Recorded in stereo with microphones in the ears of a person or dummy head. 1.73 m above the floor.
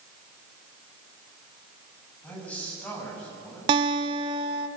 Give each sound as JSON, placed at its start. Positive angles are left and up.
{"t": 2.2, "sound": "a man speaking", "side_deg": 5, "distance_m": 9.5}
{"t": 3.7, "sound": "a guitar", "side_deg": -30, "distance_m": 1.1}